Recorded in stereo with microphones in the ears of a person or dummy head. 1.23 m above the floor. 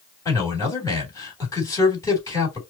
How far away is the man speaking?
About 3 m.